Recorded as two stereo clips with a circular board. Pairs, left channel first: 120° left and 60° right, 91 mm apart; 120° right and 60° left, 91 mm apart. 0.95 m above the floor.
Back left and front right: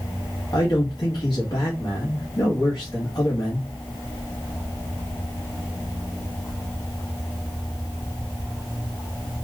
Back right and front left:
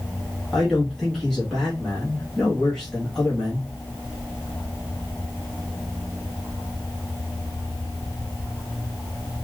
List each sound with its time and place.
0.5 s a man speaking: 155° left, 1.5 m